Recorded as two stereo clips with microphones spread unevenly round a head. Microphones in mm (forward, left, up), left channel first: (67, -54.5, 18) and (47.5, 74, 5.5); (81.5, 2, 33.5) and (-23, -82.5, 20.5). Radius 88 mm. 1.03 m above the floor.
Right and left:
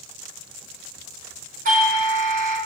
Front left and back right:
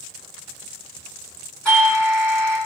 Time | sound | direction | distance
1.6 | a doorbell | 125° left | 4 m